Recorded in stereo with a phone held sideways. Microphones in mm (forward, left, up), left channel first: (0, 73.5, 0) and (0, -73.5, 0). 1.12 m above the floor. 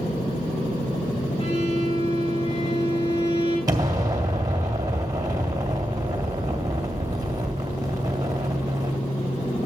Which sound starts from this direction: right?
An explosion, at 3.7 s.